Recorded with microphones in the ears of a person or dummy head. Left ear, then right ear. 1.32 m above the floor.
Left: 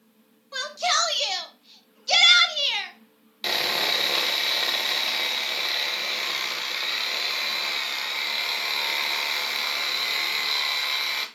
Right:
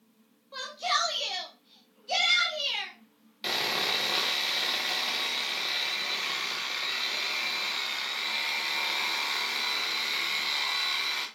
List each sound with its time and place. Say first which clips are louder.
0.5 s a shout: left 5 dB; 80° left, 2.5 m; by 2.9 s 30° left (ahead or behind), 1.5 m
3.4 s sawing: left 4 dB; 10° left (ahead or behind), 1.2 m